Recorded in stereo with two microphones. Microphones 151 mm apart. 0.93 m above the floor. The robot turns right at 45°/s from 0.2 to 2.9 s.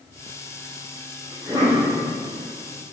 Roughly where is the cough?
Centre.